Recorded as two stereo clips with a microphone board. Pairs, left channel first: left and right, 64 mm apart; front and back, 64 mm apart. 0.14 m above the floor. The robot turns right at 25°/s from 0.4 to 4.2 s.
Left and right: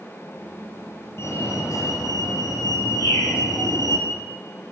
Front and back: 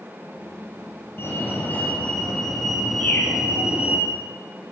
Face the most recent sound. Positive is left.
turn(degrees=75)